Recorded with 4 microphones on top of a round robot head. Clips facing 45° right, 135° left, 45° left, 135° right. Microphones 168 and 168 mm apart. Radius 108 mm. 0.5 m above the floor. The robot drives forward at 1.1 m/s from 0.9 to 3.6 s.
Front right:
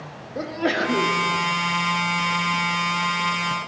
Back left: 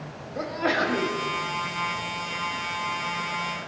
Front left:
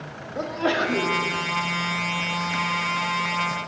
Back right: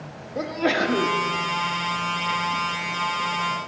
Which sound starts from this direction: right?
A sneeze, at 0.3 s.